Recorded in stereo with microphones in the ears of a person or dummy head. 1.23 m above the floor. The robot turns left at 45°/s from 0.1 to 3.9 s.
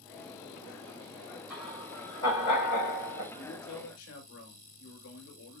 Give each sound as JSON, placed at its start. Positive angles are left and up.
{"t": 1.5, "sound": "laughter", "side_deg": 0, "distance_m": 6.5}
{"t": 3.3, "sound": "a man speaking", "side_deg": 80, "distance_m": 6.5}